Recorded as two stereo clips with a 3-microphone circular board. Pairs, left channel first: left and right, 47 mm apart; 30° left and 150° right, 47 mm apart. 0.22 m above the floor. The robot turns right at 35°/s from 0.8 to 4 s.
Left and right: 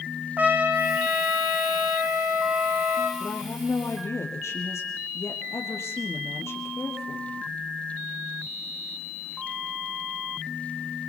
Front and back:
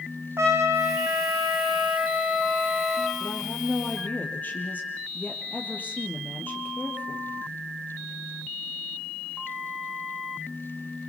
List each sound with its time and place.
0.4 s a trumpet: 140° right, 4 m; by 3.1 s 60° right, 4 m
3.2 s a woman speaking: 50° left, 5.5 m; by 7.3 s 80° left, 5.5 m